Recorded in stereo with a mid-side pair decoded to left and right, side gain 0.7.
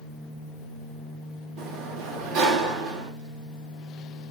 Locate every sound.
1.6 s a sliding door: 60° right, 1.4 m